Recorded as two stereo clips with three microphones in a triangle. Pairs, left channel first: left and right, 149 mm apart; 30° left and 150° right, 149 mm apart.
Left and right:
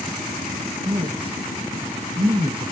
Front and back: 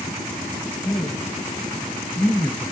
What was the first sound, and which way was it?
A man speaking, 40° right.